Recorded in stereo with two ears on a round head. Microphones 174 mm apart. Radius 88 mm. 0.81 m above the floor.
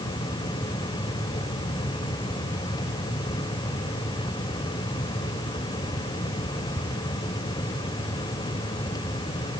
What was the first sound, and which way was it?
Only background noise.